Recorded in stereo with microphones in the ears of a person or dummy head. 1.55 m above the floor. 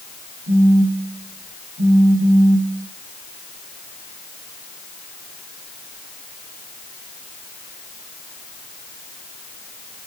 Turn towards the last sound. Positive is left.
turn(degrees=-5)  # may be behind; listen again after turning